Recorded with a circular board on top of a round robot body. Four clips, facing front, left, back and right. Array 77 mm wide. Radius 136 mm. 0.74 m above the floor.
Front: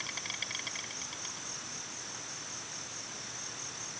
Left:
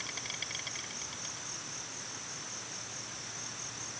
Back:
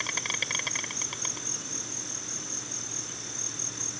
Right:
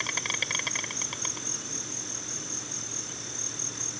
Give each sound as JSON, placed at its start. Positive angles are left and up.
{"t": 0.0, "sound": "an insect", "azimuth_deg": -130}